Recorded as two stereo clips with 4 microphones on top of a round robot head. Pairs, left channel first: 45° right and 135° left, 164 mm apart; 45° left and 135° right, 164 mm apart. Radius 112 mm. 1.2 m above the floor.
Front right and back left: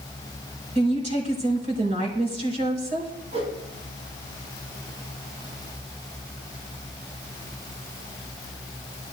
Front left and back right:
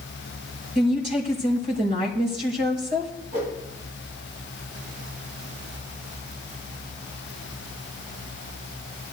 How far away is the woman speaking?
About 4.5 m.